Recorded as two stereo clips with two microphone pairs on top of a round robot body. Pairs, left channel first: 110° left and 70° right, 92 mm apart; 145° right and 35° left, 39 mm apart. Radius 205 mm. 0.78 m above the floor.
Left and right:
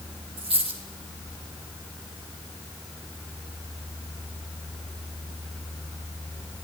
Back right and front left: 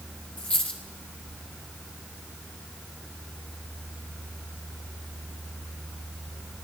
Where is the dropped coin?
90° right, 1.5 m.